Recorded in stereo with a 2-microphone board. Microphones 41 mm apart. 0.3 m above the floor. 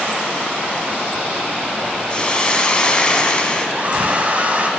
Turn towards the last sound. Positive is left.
turn(degrees=-40)  # may be behind; listen again after turning